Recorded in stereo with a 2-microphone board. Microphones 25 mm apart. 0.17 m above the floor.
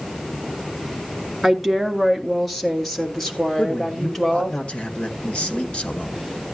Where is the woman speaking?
Centre (ahead or behind), 2 m; by 4.6 s 20° left (ahead or behind), 4 m.